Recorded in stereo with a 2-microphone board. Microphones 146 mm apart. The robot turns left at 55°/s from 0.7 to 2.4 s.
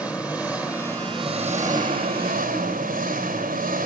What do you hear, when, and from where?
0.0 s an engine running: 10° right, 4 m; by 3.9 s 105° right, 4 m